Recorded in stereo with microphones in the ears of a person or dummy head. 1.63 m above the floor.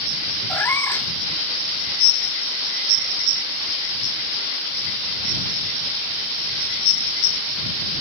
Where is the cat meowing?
15° left (ahead or behind).